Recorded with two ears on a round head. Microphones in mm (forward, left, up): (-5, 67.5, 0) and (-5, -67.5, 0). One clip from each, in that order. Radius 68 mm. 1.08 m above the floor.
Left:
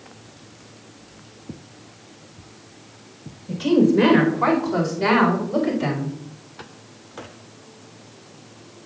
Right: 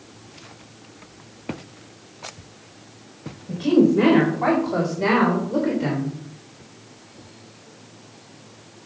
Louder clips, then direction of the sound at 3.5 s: Even; 30° left (ahead or behind).